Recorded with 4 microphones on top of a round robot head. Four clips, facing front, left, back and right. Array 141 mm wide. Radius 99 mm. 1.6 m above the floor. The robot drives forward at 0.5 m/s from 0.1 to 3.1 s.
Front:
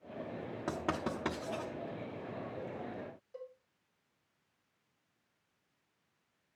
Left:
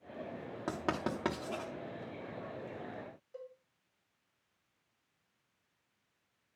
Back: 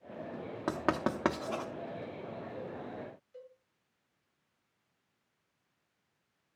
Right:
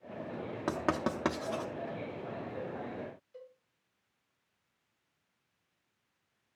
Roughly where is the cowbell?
Ahead left.